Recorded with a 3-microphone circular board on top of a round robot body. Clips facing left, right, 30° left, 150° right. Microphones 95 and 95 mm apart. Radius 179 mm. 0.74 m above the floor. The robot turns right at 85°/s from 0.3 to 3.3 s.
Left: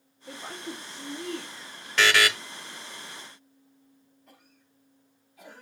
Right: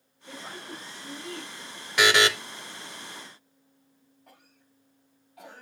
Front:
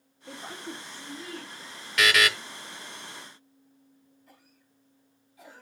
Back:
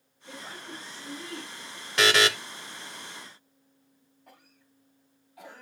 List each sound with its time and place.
0.3 s a woman speaking: 35° left, 3 m; by 1.9 s 165° left, 3 m
2.0 s a buzzer: 155° right, 1.1 m; by 2.3 s 125° right, 1.1 m
4.3 s a cough: 130° right, 6 m